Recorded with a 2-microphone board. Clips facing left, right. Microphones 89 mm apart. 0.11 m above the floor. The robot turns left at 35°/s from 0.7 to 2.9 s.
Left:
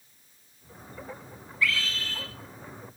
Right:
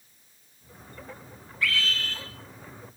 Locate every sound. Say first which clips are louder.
1.6 s a scream: right 1 dB; 50° right (ahead or behind), 2.5 m; by 2.2 s 55° right (ahead or behind), 2.5 m